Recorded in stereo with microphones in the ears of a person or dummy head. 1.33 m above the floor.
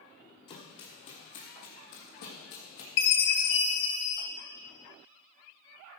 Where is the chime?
65° left (ahead or behind), 1.8 m.